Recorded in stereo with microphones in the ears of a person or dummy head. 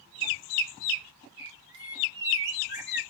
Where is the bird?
45° right (ahead or behind), 1.3 m.